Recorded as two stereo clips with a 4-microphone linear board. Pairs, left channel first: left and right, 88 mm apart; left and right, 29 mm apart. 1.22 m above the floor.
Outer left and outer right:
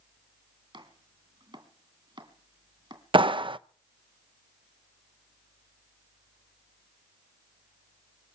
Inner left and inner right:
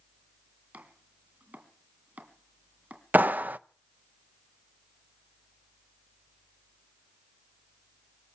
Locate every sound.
0.7 s chopping: 65° right (ahead or behind), 2.5 m
3.1 s a clap: 70° right (ahead or behind), 0.5 m